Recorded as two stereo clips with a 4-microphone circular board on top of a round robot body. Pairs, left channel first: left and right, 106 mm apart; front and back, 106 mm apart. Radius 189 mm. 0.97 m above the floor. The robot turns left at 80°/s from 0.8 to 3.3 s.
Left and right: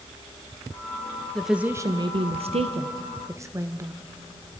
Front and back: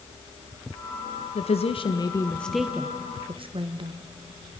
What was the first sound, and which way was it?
A woman speaking, 5° left.